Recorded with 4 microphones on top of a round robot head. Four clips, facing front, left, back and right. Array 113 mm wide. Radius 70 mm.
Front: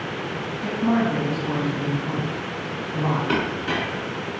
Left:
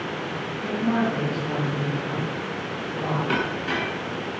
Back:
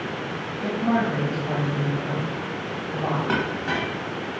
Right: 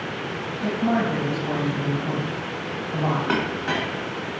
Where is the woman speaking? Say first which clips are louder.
Right 1 dB, front 1 dB; 140° right, 3.5 m.